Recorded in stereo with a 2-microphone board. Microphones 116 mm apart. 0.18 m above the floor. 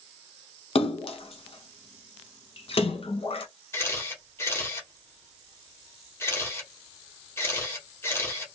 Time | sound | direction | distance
0.8 | a splash | 55° left (ahead or behind) | 0.8 m
3.7 | a camera shutter | 20° left (ahead or behind) | 1.6 m